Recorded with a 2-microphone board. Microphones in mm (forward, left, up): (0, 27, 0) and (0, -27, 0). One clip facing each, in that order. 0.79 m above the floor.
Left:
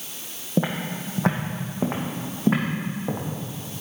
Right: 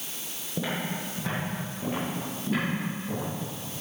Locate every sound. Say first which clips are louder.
0.6 s footsteps: left 5 dB; 50° left (ahead or behind), 2 m; by 3.2 s 75° left (ahead or behind), 4 m